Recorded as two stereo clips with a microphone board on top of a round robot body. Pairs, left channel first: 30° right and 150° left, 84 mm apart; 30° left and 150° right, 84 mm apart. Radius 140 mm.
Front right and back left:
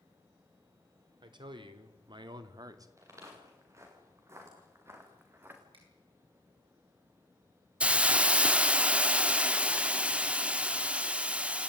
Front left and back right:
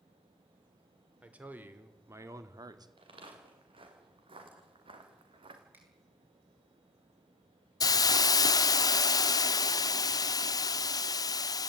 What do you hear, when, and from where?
1.2 s a man speaking: 135° left, 3 m; by 2.9 s 170° right, 2 m
3.0 s footsteps: 155° right, 7.5 m; by 5.6 s 145° right, 3.5 m
5.7 s a finger snap: 145° left, 9.5 m
7.8 s a hiss: 75° left, 0.7 m